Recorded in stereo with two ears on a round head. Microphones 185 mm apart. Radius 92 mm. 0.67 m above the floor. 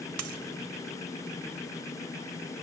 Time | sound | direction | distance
0.2 | a dropped coin | 90° right | 1.4 m